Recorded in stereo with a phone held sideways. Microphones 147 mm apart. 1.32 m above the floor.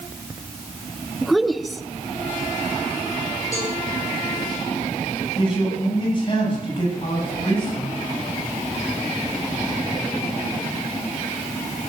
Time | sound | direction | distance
1.2 | a woman speaking | centre (ahead or behind) | 0.9 m
3.5 | a cowbell | 20° left (ahead or behind) | 8 m
5.4 | a man speaking | 35° left (ahead or behind) | 8.5 m